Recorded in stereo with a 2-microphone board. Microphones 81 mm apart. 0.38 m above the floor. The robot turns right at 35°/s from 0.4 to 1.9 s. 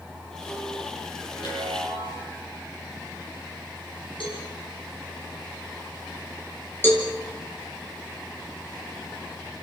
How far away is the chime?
About 9.5 m.